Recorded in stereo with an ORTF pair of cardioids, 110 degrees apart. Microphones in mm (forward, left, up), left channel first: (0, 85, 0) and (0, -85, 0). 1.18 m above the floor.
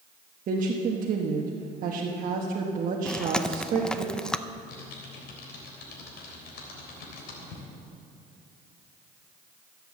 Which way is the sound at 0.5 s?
50° right.